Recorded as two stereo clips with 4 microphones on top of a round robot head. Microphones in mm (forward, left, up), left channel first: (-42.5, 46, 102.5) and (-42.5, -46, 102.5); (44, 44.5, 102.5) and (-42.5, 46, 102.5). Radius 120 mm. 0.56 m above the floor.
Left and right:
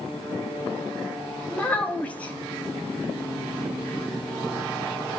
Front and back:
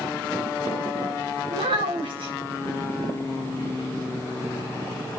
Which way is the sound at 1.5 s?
165° left.